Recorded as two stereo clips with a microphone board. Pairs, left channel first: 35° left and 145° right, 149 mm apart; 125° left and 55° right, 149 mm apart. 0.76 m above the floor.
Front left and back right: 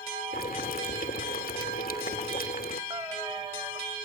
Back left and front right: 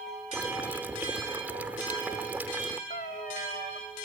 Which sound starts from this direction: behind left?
A cat meowing, at 2.9 s.